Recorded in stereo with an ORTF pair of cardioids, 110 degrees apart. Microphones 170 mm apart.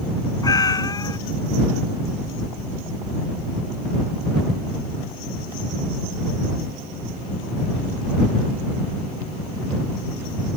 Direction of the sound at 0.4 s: 20° left.